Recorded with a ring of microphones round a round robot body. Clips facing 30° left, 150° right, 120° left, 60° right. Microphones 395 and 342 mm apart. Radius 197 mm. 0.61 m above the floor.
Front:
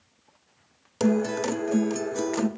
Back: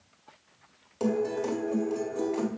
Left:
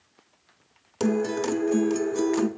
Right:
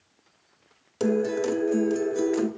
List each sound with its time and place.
1.0 s a guitar: 50° left, 0.8 m